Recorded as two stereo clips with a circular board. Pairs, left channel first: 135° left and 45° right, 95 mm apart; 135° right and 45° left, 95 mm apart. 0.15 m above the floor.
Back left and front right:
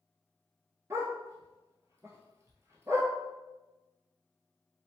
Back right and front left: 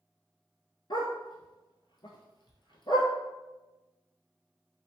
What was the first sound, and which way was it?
A dog barking, 105° right.